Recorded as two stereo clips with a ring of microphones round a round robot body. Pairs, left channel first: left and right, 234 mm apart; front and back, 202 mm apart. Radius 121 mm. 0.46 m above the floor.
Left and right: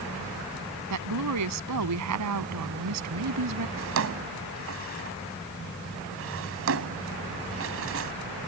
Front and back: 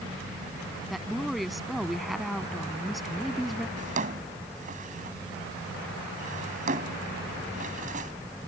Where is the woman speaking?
90° right.